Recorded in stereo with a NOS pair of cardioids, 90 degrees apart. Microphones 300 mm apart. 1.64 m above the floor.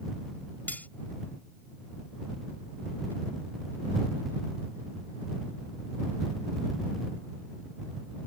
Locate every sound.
0.7 s cutlery clinking: 5° left